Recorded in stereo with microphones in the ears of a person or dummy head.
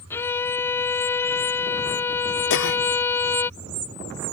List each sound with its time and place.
0.1 s a violin: 15° left (ahead or behind)
2.5 s a cough: 75° left (ahead or behind)